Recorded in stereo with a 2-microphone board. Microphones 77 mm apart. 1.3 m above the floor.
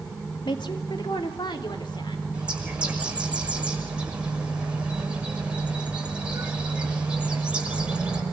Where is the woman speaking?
80° left, 2.5 m; by 2.2 s 75° left (ahead or behind), 4.5 m.